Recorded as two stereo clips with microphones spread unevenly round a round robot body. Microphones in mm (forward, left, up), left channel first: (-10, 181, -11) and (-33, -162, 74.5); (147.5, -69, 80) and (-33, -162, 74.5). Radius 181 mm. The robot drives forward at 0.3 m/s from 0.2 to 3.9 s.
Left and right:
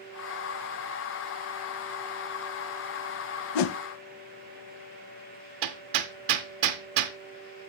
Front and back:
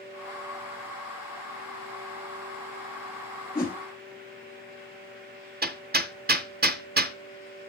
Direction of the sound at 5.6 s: 105° right.